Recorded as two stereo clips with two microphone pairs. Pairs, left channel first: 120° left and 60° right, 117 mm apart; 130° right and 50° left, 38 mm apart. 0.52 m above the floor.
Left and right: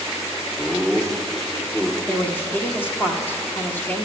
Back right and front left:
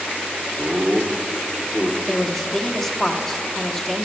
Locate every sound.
0.6 s laughter: 35° left, 0.8 m
2.1 s a woman speaking: 155° left, 0.7 m